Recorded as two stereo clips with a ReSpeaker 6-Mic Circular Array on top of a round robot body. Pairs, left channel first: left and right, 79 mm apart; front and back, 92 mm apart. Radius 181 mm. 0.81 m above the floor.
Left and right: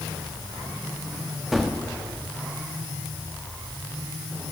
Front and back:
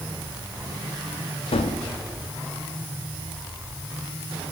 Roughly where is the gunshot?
Ahead.